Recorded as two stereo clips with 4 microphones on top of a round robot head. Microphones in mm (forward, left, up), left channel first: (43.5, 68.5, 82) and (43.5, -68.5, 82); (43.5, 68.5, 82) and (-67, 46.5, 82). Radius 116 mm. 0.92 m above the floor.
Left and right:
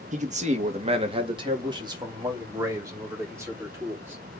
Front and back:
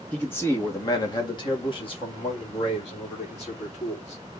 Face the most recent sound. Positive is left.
turn(degrees=-15)